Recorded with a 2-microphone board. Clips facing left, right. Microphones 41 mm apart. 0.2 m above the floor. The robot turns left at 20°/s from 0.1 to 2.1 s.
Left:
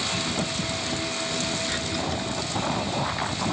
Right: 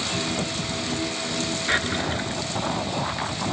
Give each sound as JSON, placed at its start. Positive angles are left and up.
{"t": 1.7, "sound": "a drawer", "side_deg": -45}